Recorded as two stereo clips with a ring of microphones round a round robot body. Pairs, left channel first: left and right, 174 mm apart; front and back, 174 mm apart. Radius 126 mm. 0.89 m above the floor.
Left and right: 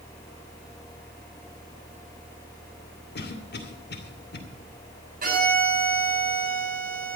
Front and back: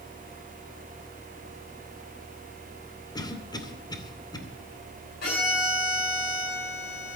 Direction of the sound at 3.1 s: 70° left.